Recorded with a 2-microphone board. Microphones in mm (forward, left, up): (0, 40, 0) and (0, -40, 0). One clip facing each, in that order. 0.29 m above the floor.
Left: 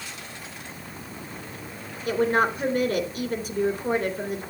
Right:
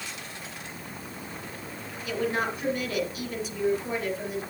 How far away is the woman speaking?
About 3 m.